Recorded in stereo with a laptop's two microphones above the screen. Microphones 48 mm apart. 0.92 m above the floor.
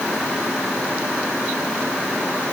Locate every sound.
Only background noise.